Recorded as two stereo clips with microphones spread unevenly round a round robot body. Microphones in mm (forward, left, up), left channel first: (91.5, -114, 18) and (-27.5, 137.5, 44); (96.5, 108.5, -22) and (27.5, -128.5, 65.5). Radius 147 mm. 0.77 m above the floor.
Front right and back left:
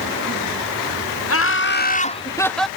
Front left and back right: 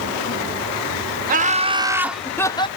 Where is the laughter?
40° right; by 2.7 s 20° left.